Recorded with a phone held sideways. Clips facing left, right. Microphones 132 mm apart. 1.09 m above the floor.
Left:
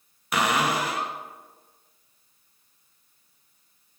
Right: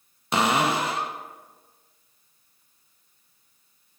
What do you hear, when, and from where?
0.3 s a cupboard door: 25° right (ahead or behind), 0.6 m